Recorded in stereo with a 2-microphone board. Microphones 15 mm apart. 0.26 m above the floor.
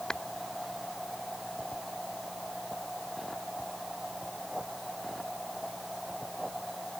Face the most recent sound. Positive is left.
turn(degrees=50)  # may be behind; listen again after turning